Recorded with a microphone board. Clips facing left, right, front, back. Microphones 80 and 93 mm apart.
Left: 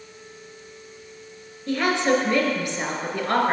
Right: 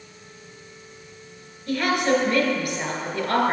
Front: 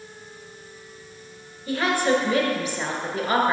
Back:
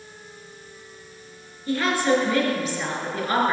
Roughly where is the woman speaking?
Ahead left.